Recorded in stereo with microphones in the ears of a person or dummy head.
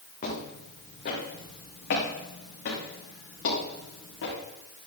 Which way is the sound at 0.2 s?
40° left (ahead or behind).